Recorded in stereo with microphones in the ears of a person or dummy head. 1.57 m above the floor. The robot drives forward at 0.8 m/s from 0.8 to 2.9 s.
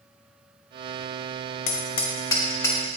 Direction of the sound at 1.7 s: 30° left (ahead or behind).